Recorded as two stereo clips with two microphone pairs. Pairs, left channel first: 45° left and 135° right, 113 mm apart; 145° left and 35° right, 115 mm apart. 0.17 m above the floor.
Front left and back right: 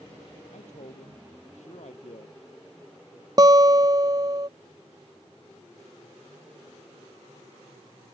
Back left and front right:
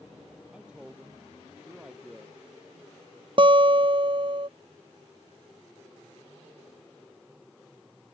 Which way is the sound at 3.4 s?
80° right.